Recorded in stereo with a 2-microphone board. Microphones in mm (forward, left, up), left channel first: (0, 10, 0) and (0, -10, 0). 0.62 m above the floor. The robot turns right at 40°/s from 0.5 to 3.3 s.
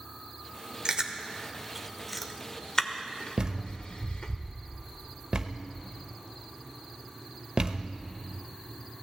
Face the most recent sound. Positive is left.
turn(degrees=-45)  # may be behind; listen again after turning